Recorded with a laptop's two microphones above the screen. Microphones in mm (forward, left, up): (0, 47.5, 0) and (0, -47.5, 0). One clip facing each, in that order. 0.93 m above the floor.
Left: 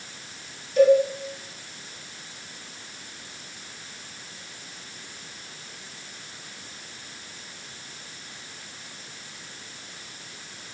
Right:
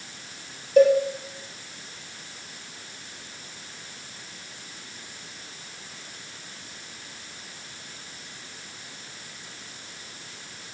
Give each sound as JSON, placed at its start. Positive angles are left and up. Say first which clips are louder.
{"t": 0.8, "sound": "a cowbell", "louder": "even", "side_deg": -50, "distance_m": 0.8}